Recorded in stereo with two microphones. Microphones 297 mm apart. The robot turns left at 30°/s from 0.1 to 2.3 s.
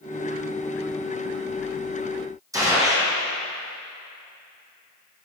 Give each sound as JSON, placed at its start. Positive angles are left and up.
{"t": 2.5, "sound": "a gunshot", "side_deg": -10, "distance_m": 1.7}